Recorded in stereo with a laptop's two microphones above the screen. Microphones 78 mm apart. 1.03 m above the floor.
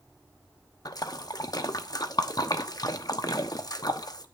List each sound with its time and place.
0.8 s a splash: 55° left (ahead or behind), 0.9 m